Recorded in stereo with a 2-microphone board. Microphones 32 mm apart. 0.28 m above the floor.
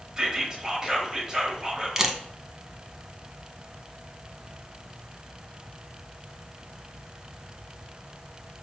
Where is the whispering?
25° right (ahead or behind), 0.9 m.